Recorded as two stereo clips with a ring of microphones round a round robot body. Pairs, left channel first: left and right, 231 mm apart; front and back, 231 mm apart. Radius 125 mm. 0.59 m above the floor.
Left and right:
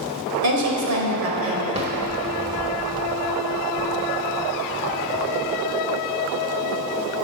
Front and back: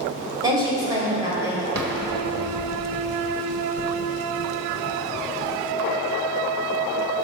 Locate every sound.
0.4 s a woman speaking: 105° right, 2.5 m
1.7 s a drawer: 155° right, 1.2 m